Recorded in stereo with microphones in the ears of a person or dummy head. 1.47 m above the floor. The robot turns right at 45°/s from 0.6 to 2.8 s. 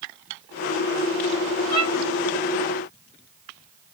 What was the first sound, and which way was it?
A violin, 20° right (ahead or behind).